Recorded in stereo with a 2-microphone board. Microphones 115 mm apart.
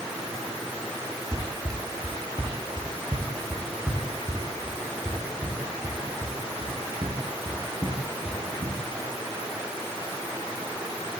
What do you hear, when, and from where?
1.3 s running footsteps: 30° right (ahead or behind), 3.5 m; by 8.8 s 60° right (ahead or behind), 8.5 m